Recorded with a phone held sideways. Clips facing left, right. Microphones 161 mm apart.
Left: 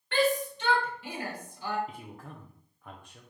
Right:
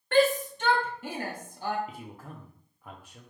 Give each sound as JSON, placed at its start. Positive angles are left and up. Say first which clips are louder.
{"t": 0.1, "sound": "a shout", "louder": "right 4 dB", "side_deg": -45, "distance_m": 1.2}
{"t": 1.9, "sound": "a man speaking", "louder": "right 1 dB", "side_deg": -5, "distance_m": 0.5}